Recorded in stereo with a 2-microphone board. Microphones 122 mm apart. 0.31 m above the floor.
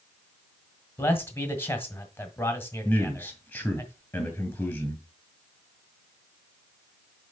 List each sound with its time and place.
1.0 s a man speaking: 20° left (ahead or behind), 1.6 m
2.9 s a man speaking: 15° left (ahead or behind), 2.5 m